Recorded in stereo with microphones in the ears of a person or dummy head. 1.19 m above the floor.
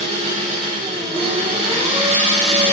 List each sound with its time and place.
0.0 s an engine running: 40° right (ahead or behind), 3 m